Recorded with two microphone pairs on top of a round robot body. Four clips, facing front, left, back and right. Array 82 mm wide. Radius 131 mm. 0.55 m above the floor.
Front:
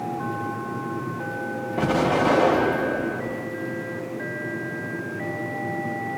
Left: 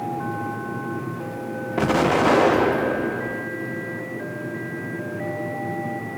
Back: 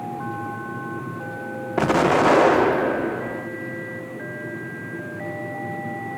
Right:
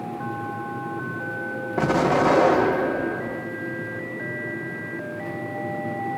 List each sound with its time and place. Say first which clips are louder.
1.8 s an explosion: left 1 dB, back 4 dB; 175° left, 0.6 m